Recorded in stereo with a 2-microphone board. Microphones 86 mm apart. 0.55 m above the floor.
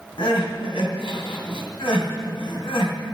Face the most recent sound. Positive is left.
turn(degrees=75)  # may be behind; listen again after turning